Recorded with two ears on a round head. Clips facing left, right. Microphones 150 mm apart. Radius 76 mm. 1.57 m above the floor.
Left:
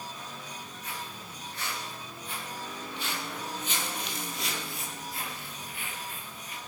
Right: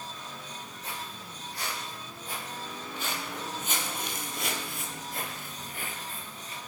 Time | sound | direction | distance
0.8 | footsteps | 30° right (ahead or behind) | 5 m